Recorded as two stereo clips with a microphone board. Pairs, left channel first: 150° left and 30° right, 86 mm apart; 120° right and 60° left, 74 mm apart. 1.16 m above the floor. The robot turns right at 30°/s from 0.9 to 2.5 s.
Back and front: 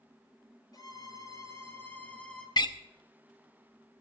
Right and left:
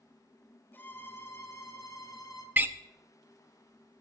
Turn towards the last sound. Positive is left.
turn(degrees=125)